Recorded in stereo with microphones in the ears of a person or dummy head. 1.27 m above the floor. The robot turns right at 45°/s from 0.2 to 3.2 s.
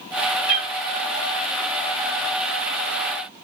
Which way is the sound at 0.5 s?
60° left (ahead or behind).